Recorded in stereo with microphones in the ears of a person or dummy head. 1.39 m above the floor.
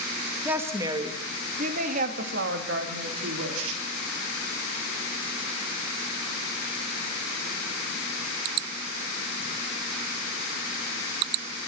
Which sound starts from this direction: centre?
A woman speaking, at 0.5 s.